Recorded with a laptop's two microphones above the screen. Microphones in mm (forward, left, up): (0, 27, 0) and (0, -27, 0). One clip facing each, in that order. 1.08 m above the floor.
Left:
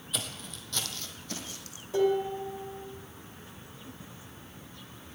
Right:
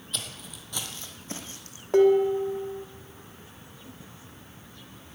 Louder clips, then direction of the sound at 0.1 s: Left 1 dB; 5° left (ahead or behind).